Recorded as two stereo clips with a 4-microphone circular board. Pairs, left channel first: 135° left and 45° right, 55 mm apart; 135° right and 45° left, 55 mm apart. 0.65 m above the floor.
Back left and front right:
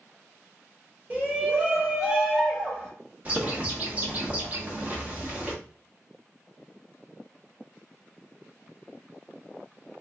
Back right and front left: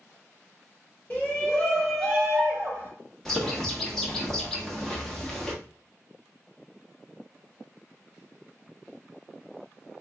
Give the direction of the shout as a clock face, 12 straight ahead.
3 o'clock.